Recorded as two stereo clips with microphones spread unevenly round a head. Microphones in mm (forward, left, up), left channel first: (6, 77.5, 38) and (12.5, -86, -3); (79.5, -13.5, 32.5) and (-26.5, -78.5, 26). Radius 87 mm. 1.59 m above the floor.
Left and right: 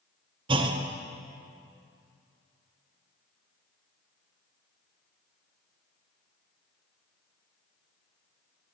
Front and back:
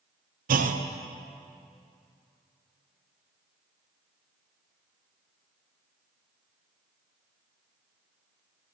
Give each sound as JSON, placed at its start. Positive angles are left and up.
{"t": 0.5, "sound": "a clunk", "azimuth_deg": -155, "distance_m": 0.6}